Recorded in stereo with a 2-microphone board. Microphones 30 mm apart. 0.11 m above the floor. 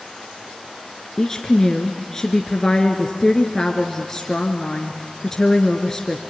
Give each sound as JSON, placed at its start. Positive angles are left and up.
{"t": 1.2, "sound": "a woman speaking", "side_deg": 15, "distance_m": 1.6}